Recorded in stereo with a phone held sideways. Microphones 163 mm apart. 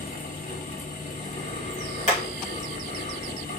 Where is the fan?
50° left (ahead or behind), 1.9 m.